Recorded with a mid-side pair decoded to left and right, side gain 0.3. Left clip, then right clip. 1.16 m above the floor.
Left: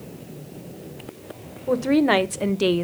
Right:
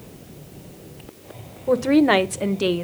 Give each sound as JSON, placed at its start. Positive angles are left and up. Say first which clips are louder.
{"t": 1.7, "sound": "a woman speaking", "louder": "right 2 dB", "azimuth_deg": -20, "distance_m": 0.8}